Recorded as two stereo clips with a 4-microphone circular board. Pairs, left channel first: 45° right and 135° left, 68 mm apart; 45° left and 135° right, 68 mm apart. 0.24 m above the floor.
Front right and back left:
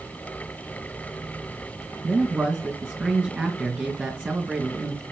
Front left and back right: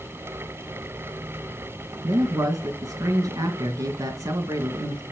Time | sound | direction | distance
2.0 | a man speaking | 165° right | 2.5 m